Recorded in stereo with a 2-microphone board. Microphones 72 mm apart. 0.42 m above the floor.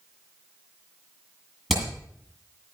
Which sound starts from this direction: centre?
Hammering, at 1.7 s.